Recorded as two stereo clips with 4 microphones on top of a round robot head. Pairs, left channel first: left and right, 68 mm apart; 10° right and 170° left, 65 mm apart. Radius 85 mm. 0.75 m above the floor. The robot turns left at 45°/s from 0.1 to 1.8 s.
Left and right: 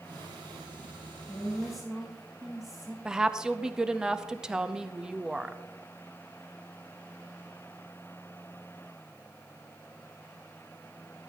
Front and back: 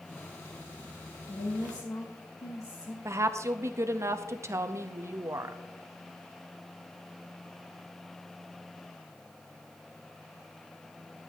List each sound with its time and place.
1.3 s a woman speaking: 15° left, 2.0 m; by 3.0 s 5° right, 2.0 m
3.0 s a woman speaking: 165° right, 0.8 m